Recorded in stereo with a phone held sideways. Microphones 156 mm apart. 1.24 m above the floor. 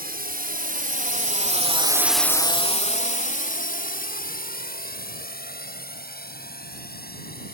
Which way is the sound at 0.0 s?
75° right (ahead or behind).